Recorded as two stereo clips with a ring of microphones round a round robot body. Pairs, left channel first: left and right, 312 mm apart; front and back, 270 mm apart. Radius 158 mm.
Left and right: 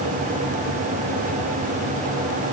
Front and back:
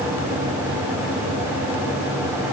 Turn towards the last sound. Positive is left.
No sound to turn to.